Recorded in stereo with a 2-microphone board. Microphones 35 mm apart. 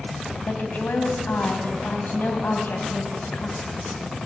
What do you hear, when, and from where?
0.5 s a woman speaking: 65° left (ahead or behind), 2.5 m